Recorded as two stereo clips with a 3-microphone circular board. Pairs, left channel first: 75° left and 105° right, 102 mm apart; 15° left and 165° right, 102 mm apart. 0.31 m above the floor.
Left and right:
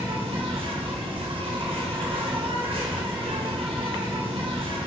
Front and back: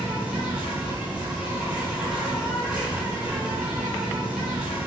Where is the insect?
85° right, 1.1 m.